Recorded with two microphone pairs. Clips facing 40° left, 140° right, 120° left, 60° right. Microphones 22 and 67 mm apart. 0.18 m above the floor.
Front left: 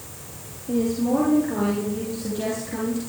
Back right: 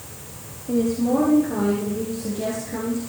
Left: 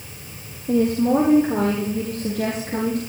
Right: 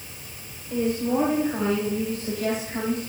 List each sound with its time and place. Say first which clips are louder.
0.7 s a woman speaking: back right 1 dB, left 6 dB; 125° left, 7 m; by 3.0 s 105° left, 7 m